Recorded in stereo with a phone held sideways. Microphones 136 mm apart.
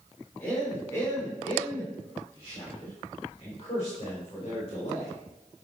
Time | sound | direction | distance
0.4 | a man speaking | 20° left (ahead or behind) | 3.5 m